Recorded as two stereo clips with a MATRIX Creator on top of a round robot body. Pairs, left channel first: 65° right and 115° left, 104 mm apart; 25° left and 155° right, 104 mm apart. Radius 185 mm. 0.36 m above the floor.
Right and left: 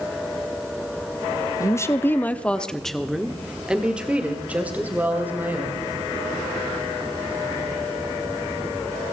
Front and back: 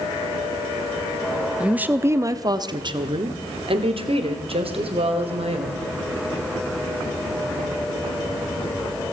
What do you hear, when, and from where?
1.6 s a woman speaking: 85° right, 1.1 m; by 5.9 s 175° right, 3 m